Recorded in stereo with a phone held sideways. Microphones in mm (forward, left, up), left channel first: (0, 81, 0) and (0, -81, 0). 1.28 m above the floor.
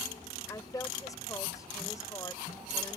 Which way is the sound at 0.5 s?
20° left (ahead or behind).